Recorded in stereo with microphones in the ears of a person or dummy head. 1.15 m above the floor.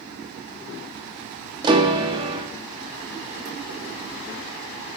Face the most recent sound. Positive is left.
turn(degrees=-25)  # may be behind; listen again after turning